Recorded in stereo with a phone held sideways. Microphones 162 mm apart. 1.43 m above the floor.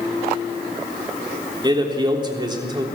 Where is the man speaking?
25° right (ahead or behind), 3.5 m.